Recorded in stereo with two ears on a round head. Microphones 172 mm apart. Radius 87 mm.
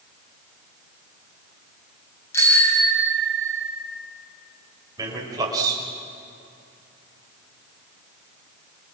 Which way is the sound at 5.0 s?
20° right (ahead or behind).